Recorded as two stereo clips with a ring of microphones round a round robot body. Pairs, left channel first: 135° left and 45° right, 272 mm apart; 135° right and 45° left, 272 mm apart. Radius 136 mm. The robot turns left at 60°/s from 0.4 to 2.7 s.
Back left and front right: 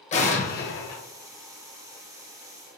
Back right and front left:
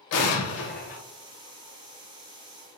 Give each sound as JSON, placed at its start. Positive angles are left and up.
{"t": 0.1, "sound": "an explosion", "azimuth_deg": -160, "distance_m": 0.6}